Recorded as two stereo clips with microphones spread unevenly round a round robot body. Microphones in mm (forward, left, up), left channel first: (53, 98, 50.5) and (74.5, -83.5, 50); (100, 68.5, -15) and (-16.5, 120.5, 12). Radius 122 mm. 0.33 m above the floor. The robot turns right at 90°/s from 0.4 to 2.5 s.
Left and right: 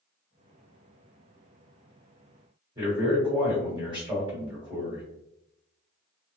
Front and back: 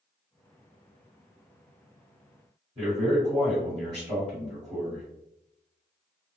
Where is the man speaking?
135° right, 1.6 m.